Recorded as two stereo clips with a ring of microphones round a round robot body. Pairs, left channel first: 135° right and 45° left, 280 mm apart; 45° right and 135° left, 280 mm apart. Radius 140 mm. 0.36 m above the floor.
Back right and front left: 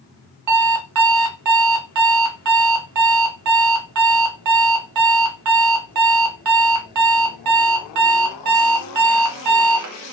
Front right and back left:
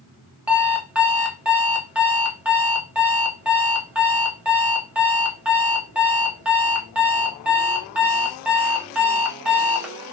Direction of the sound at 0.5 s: 50° left.